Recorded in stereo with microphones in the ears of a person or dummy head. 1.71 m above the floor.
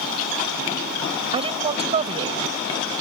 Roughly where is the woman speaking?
Right.